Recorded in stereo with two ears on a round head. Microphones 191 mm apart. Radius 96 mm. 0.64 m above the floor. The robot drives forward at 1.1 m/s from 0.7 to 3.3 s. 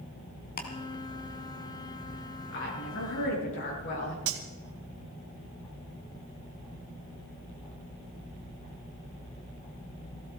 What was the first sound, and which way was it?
Ticking, 40° left (ahead or behind).